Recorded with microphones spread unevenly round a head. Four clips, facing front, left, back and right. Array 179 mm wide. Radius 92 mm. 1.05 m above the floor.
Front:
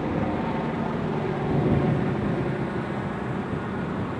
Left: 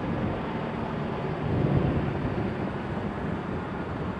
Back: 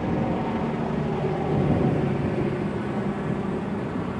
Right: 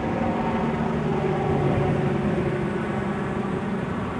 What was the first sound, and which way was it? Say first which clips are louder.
A helicopter: right 6 dB, back 1 dB; 110° right.